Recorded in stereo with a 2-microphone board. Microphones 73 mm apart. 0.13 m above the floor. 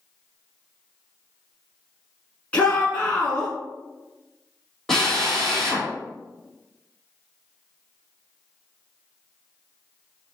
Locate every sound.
2.5 s a shout: 20° left (ahead or behind), 1.1 m
4.9 s a drill: 5° left (ahead or behind), 1.9 m